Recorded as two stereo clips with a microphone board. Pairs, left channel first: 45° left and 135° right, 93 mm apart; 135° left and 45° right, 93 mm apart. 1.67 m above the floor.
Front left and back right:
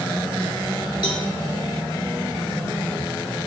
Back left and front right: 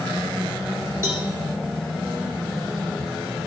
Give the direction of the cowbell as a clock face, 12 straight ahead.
12 o'clock.